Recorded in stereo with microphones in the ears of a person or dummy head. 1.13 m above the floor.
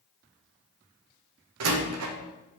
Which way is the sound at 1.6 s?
80° right.